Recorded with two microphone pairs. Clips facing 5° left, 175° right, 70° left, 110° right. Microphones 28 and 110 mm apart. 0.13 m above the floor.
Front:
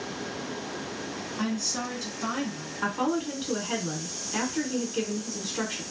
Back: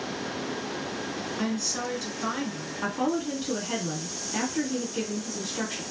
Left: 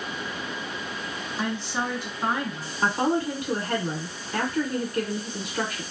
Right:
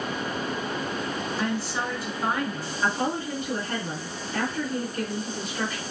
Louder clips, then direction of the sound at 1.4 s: Front 1 dB, left 2 dB; 60° left.